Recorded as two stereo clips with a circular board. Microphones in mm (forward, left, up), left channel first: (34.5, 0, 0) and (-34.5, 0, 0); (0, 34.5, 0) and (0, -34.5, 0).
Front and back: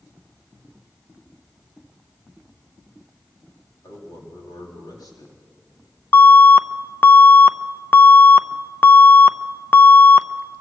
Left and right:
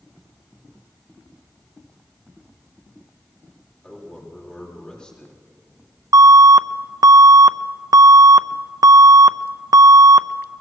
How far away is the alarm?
About 0.6 m.